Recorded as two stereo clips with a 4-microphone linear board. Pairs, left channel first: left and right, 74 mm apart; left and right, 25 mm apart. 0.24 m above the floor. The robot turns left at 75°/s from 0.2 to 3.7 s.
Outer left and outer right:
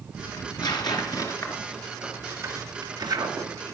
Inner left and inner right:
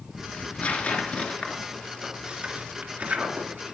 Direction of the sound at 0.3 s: 55° left (ahead or behind).